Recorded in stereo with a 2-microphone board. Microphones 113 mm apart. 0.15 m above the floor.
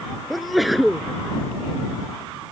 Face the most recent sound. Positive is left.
turn(degrees=0)  # may be behind; listen again after turning